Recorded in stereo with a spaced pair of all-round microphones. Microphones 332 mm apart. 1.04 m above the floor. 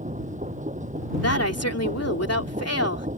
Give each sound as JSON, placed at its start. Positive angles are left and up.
{"t": 0.0, "sound": "a machine running", "side_deg": -20}
{"t": 1.2, "sound": "a woman speaking", "side_deg": 45}